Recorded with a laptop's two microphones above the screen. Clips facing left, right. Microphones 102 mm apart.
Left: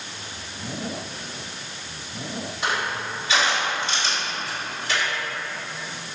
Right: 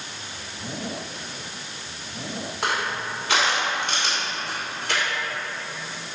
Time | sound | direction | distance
2.6 | crushing | 60° right (ahead or behind) | 2 m